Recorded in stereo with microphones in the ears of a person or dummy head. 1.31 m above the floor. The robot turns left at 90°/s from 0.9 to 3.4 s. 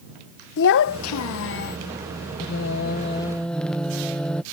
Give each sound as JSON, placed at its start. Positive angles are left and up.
{"t": 0.6, "sound": "a child speaking", "azimuth_deg": 120}
{"t": 2.4, "sound": "singing", "azimuth_deg": 95}